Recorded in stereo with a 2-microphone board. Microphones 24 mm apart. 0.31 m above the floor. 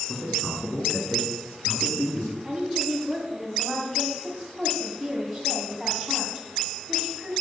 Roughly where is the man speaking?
Left.